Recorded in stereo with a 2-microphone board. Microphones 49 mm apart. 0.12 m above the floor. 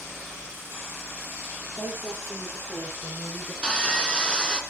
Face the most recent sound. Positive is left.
turn(degrees=20)  # may be behind; listen again after turning